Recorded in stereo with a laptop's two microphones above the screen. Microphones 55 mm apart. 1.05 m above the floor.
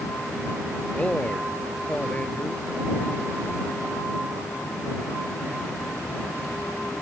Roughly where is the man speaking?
Left.